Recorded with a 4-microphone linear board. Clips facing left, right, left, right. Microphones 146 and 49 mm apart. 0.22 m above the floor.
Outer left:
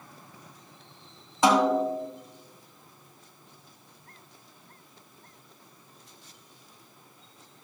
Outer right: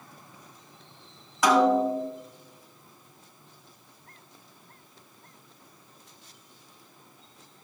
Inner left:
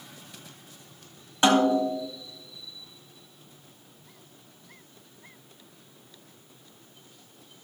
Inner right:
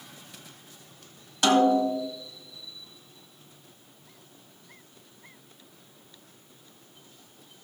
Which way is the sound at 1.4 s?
25° left (ahead or behind).